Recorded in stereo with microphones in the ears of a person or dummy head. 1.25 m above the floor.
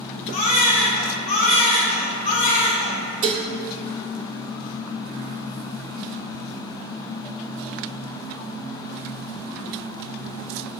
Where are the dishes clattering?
30° right (ahead or behind), 0.7 m.